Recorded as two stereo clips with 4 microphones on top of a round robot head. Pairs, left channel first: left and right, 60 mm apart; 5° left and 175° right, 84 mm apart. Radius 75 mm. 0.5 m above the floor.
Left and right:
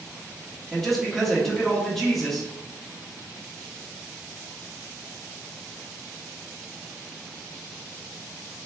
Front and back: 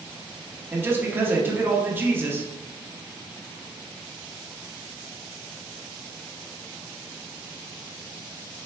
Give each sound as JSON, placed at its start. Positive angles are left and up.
{"t": 0.7, "sound": "a man speaking", "azimuth_deg": 175, "distance_m": 1.3}